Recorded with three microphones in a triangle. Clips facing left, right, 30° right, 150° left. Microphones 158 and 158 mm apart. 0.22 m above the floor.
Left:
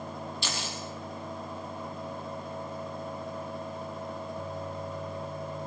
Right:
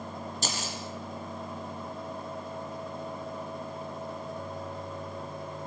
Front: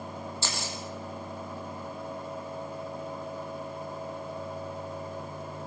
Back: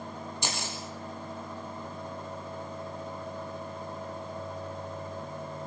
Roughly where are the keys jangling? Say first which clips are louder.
Right 1 dB, back 2 dB; behind right.